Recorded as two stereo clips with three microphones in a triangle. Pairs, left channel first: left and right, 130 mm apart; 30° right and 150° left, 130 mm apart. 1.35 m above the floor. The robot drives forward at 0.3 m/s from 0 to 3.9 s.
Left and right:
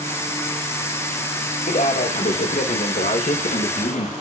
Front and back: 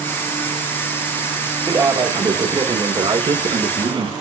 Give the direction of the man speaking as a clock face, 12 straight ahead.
9 o'clock.